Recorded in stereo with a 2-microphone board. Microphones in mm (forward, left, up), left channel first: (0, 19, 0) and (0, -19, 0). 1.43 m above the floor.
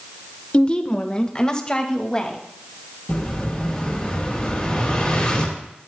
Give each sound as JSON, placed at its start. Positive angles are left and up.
{"t": 0.5, "sound": "a woman speaking", "side_deg": 35, "distance_m": 1.1}
{"t": 3.1, "sound": "an explosion", "side_deg": 20, "distance_m": 7.0}